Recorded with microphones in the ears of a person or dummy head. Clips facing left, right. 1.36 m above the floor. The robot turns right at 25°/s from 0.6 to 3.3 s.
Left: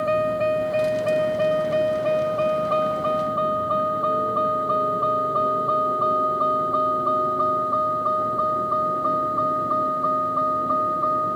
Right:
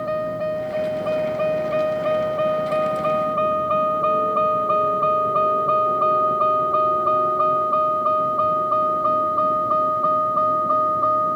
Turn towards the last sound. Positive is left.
turn(degrees=-45)  # may be behind; listen again after turning